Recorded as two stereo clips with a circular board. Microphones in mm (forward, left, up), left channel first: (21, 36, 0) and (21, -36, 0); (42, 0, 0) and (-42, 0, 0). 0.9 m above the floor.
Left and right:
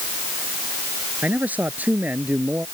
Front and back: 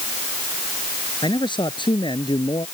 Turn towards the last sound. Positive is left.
turn(degrees=-20)